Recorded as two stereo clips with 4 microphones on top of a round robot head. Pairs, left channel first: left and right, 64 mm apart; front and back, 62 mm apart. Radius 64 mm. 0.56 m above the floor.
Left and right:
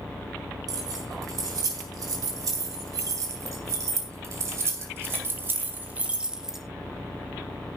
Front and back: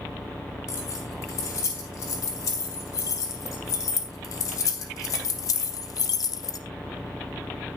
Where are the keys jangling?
55° right, 4.5 m; by 6.6 s 5° right, 1.2 m.